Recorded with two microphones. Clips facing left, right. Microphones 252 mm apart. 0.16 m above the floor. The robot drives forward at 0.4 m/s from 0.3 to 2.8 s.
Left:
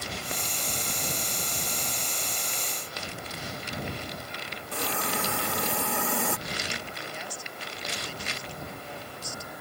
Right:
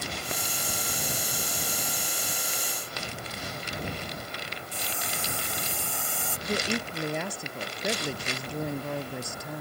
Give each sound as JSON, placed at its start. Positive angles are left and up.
{"t": 4.7, "sound": "a hiss", "side_deg": 70}
{"t": 6.5, "sound": "a woman speaking", "side_deg": -60}